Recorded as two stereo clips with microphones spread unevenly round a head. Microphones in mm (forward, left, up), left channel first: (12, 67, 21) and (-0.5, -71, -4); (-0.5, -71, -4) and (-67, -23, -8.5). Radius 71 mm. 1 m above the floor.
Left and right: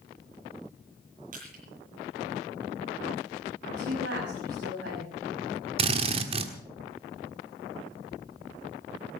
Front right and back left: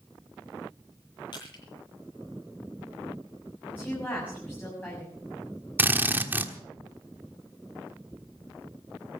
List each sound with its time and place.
1.3 s crushing: 65° right, 8 m
3.6 s a woman speaking: 105° right, 6.5 m
5.8 s a drill: 150° right, 1.4 m